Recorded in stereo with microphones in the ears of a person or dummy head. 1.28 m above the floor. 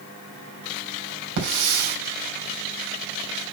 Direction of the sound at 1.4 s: 65° right (ahead or behind).